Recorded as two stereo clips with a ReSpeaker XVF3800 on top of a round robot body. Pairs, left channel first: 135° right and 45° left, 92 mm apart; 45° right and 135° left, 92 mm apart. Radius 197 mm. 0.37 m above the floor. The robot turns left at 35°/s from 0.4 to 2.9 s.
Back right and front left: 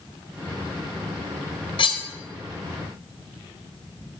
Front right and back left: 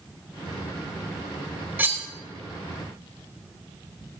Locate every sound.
1.8 s cutlery clinking: 155° right, 1.2 m; by 2.1 s 165° right, 1.2 m